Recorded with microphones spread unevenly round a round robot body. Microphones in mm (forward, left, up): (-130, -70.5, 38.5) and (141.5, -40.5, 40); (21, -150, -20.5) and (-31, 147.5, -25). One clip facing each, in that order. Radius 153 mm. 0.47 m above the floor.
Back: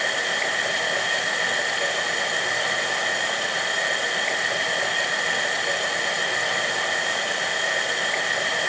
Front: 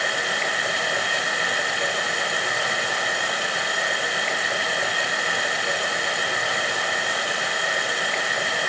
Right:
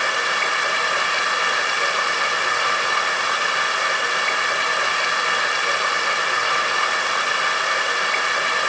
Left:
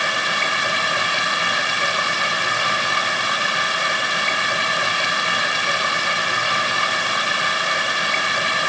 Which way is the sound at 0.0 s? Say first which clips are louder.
Even, even; 95° left.